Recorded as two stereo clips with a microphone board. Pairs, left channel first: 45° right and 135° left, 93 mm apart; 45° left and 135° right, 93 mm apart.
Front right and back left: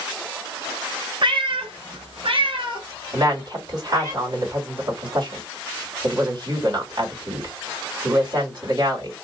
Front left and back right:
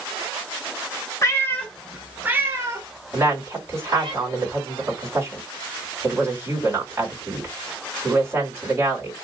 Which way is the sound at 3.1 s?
165° left.